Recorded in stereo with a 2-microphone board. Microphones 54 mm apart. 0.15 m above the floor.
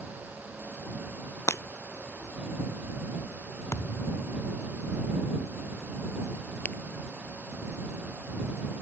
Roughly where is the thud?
Left.